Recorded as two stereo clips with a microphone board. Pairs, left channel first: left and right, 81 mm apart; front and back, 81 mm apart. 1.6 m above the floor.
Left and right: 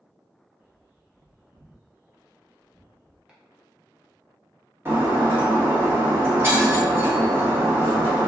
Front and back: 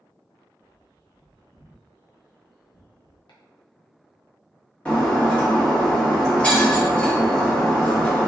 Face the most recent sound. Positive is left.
turn(degrees=-60)